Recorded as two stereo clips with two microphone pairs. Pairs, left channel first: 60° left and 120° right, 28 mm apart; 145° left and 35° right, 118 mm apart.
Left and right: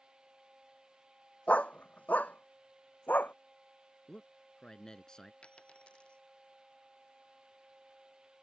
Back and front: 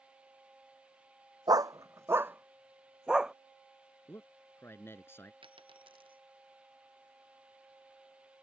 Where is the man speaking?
100° left.